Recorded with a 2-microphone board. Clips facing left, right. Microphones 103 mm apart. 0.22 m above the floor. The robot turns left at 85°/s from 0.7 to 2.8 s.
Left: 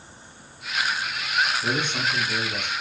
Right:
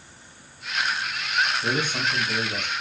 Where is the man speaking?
Centre (ahead or behind), 1.3 m; by 2.7 s 25° right (ahead or behind), 1.3 m.